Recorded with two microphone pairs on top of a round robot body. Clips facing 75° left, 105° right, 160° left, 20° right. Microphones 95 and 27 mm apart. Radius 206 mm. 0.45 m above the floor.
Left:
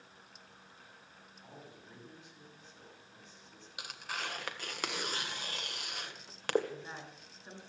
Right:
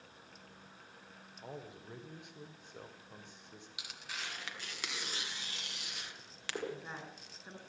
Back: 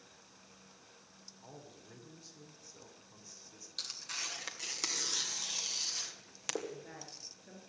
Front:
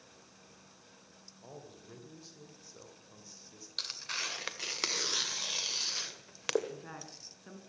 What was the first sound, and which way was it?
A man speaking, 95° right.